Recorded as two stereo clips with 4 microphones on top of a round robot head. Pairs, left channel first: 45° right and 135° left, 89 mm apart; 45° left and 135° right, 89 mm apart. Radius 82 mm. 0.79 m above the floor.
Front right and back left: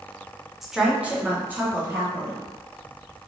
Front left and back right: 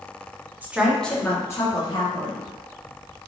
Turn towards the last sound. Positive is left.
turn(degrees=70)